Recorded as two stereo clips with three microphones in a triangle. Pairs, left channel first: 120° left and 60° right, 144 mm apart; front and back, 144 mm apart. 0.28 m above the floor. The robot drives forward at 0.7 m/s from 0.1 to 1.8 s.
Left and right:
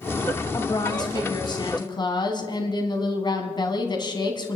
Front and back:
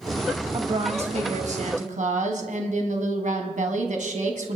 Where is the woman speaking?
165° left, 1.3 m; by 4.6 s 175° left, 2.0 m.